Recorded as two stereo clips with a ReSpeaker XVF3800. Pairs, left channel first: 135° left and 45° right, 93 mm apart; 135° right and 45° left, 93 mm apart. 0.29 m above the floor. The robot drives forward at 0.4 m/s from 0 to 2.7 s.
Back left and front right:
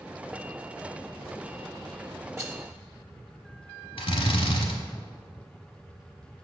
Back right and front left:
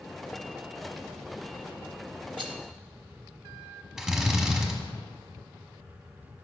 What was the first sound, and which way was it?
A rattle, 10° left.